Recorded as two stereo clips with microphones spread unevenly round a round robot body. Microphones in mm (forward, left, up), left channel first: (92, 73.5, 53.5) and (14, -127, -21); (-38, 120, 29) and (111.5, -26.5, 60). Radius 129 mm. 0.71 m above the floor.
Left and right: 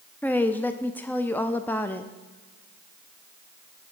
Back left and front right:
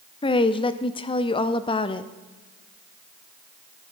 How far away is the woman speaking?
About 0.6 m.